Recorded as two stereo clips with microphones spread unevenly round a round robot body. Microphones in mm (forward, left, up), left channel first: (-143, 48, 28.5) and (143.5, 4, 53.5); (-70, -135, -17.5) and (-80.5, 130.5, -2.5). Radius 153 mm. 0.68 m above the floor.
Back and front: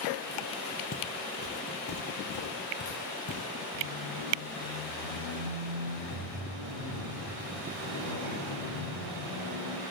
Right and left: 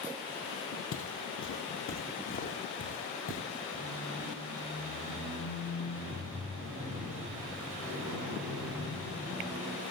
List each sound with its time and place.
0.9 s footsteps: 125° right, 1.5 m; by 3.4 s 135° right, 4.5 m
3.7 s a squeak: 5° left, 3 m